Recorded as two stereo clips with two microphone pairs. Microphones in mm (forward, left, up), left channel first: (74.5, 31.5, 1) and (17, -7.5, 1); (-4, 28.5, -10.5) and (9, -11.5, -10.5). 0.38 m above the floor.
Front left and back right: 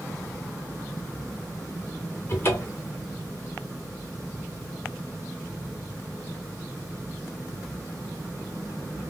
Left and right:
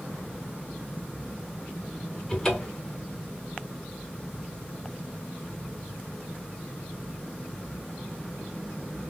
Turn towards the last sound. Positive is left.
turn(degrees=45)